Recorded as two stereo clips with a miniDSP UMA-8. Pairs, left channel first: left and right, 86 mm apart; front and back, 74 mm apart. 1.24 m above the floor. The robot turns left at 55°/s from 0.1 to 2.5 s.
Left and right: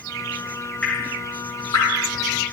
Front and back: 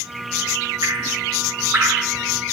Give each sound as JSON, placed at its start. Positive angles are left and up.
{"t": 0.8, "sound": "dripping", "azimuth_deg": 160, "distance_m": 3.5}